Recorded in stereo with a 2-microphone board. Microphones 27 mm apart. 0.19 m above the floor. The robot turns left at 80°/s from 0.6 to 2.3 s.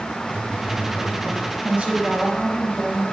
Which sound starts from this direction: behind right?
A woman speaking, at 1.6 s.